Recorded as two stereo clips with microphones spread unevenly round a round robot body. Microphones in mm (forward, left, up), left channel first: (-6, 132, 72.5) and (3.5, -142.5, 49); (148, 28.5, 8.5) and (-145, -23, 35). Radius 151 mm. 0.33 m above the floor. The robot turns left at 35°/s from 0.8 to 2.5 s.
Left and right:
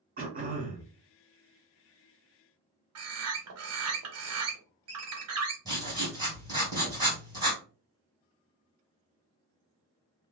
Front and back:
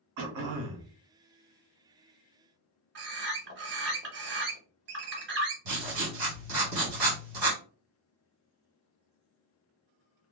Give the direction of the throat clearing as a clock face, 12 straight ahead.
5 o'clock.